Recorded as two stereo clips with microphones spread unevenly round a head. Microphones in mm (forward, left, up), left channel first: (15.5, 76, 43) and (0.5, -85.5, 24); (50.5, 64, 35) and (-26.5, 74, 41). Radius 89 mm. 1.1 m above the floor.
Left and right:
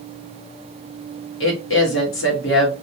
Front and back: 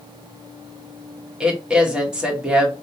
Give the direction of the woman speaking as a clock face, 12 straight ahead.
9 o'clock.